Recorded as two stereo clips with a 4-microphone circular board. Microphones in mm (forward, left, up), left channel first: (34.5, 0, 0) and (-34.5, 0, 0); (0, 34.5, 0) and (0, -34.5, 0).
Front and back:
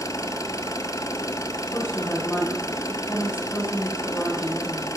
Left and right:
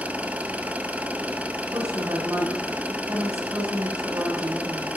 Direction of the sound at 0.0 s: 25° right.